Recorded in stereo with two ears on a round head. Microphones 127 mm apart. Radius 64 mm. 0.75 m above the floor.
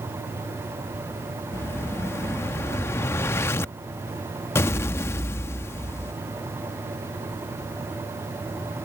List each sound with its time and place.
1.5 s an explosion: 20° left (ahead or behind)